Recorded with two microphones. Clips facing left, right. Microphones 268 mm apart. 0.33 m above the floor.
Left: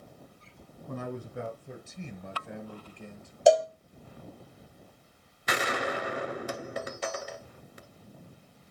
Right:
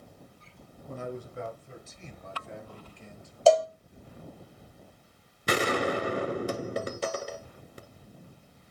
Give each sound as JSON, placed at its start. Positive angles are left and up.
{"t": 0.9, "sound": "a man speaking", "side_deg": 75, "distance_m": 4.0}
{"t": 3.5, "sound": "a cowbell", "side_deg": 15, "distance_m": 1.2}
{"t": 5.5, "sound": "a gunshot", "side_deg": -40, "distance_m": 1.2}